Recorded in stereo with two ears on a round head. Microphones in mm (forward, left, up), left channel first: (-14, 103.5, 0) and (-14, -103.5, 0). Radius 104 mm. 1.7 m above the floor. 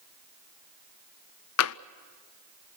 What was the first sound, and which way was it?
Tapping, 65° left (ahead or behind).